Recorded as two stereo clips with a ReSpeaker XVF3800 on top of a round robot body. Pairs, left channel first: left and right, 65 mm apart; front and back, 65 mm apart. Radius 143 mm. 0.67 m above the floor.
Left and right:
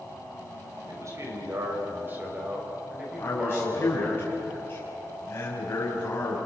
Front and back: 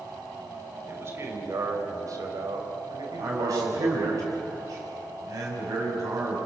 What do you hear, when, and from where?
0.9 s a man speaking: 130° right, 5 m; by 4.2 s straight behind, 6 m
3.2 s a man speaking: 145° left, 5.5 m